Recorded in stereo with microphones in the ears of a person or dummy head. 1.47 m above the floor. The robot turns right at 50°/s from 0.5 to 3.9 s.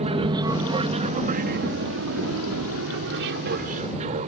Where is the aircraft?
30° right (ahead or behind); by 4.3 s 35° right (ahead or behind).